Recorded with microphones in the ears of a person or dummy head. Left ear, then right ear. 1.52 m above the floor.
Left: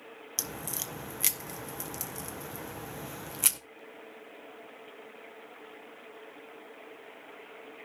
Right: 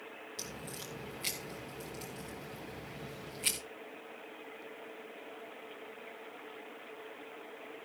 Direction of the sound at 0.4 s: 45° left (ahead or behind).